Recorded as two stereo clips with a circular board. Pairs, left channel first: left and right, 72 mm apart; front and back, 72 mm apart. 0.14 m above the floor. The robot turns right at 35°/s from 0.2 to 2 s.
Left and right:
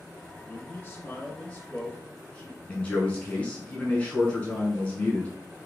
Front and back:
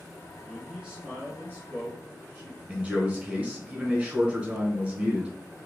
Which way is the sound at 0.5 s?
100° left.